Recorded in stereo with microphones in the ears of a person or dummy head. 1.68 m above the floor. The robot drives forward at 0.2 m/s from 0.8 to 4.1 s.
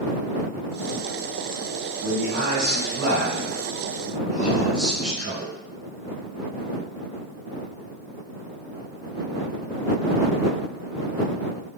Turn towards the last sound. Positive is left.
turn(degrees=-50)  # may be behind; listen again after turning